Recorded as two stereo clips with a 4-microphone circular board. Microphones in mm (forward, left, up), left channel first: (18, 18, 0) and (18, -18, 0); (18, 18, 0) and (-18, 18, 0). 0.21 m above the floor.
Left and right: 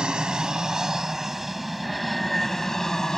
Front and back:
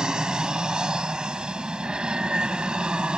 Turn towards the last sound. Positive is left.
turn(degrees=145)